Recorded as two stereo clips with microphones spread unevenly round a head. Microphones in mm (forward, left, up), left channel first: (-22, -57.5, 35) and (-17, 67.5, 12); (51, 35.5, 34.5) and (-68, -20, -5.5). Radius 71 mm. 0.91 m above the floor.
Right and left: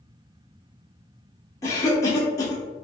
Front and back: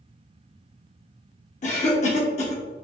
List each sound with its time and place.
1.6 s a cough: 20° right, 0.8 m